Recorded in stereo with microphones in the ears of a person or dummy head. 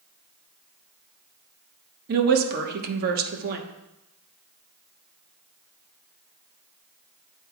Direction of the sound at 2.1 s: 55° right (ahead or behind).